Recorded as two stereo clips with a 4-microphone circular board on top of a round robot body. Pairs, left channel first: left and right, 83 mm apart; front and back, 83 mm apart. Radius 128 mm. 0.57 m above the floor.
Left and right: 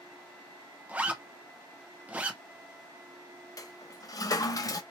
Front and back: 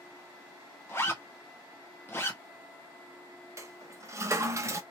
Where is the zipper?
35° right, 1.4 m.